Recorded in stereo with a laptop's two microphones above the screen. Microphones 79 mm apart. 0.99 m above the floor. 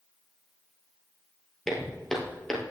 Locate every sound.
1.7 s footsteps: 5° left (ahead or behind), 1.4 m